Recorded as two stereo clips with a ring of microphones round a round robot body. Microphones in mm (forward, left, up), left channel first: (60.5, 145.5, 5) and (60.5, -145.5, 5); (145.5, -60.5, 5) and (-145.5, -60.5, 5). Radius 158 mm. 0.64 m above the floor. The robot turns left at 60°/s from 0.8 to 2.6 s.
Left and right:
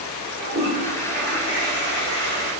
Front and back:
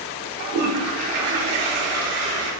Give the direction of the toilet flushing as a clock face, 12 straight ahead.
5 o'clock.